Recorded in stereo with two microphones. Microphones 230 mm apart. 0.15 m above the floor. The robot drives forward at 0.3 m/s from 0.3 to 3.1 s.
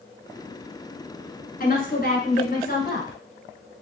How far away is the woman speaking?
About 1.4 m.